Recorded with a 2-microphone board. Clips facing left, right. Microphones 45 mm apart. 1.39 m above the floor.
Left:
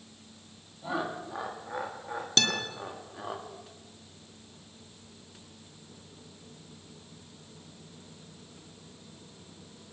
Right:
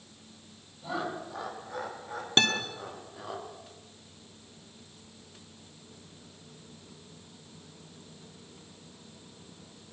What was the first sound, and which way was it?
Laughter, 20° left (ahead or behind).